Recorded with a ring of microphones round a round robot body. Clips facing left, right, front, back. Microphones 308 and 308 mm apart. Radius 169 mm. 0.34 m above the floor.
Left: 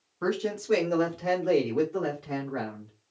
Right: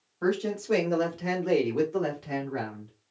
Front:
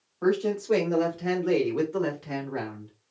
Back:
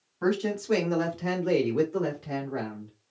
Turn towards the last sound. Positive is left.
turn(degrees=-50)